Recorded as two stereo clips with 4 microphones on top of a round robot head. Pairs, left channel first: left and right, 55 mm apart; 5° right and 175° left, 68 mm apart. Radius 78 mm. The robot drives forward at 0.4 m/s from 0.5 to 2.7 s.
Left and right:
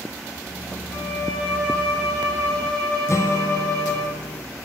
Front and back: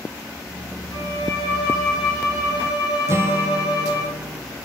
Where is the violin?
10° left, 3.5 m; by 4.1 s 15° left, 2.5 m.